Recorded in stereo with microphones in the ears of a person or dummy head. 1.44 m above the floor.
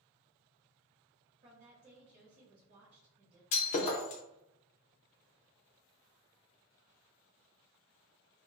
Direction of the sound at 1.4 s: 40° right (ahead or behind).